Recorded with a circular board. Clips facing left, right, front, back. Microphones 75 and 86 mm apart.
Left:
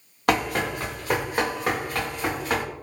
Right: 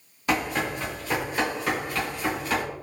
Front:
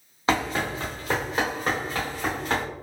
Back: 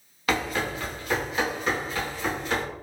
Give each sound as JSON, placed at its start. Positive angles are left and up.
{"t": 0.3, "sound": "running footsteps", "azimuth_deg": 60, "distance_m": 1.4}